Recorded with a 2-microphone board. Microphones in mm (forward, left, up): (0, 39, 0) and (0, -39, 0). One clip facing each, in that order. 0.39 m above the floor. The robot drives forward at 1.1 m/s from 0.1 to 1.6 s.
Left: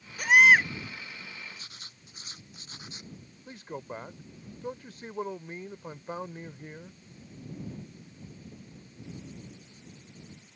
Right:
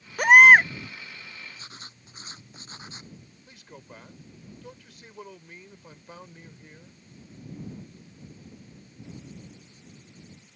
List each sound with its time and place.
0.2 s a baby crying: 60° right (ahead or behind); by 0.7 s 45° right (ahead or behind)
1.6 s writing: 30° right (ahead or behind)
3.5 s a man speaking: 35° left (ahead or behind)